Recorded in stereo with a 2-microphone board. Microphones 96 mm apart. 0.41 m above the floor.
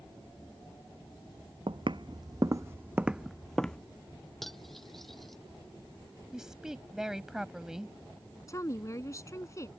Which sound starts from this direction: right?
Footsteps, at 1.7 s.